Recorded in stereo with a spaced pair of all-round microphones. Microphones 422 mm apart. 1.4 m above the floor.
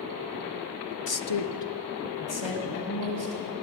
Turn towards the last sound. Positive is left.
turn(degrees=80)